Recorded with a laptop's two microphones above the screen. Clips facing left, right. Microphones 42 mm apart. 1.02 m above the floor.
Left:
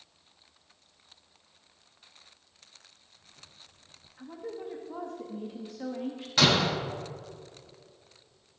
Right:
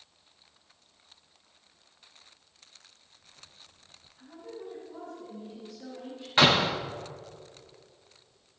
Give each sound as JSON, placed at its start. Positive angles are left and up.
{"t": 4.2, "sound": "a woman speaking", "side_deg": 70, "distance_m": 1.3}
{"t": 6.4, "sound": "a door slam", "side_deg": -30, "distance_m": 1.2}